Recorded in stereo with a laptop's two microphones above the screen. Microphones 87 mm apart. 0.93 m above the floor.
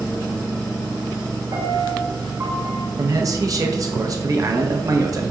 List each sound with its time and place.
1.5 s a piano: 50° right (ahead or behind), 0.9 m
3.0 s a man speaking: 45° right (ahead or behind), 0.7 m